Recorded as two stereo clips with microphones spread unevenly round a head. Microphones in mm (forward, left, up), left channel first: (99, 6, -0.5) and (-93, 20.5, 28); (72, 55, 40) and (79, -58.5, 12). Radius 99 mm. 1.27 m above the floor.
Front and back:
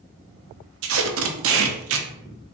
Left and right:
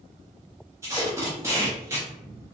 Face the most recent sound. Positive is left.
turn(degrees=-170)